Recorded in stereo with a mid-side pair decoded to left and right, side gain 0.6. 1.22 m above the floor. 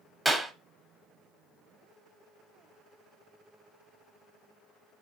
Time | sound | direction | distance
0.2 | a clap | 5° right | 0.7 m